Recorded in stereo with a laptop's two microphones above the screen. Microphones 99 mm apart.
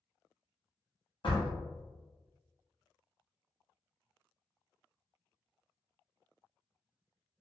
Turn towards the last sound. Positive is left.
turn(degrees=55)  # may be behind; listen again after turning